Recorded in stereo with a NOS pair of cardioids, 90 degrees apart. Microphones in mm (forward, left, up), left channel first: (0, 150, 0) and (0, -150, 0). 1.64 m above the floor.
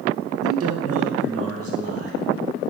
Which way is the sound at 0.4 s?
50° right.